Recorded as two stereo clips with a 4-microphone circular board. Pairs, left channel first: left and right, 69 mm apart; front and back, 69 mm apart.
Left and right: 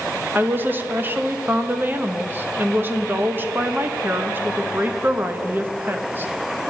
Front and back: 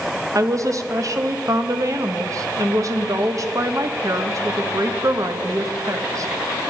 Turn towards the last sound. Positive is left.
turn(degrees=-145)